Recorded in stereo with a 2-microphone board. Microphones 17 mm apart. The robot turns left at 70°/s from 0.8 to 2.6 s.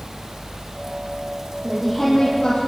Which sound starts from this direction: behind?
A woman speaking, at 1.6 s.